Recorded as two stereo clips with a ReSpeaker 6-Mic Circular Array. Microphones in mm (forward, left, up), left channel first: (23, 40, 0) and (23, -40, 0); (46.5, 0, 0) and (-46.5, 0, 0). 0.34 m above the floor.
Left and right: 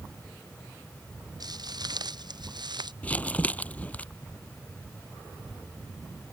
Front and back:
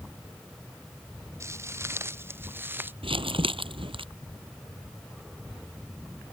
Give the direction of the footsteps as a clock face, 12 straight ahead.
4 o'clock.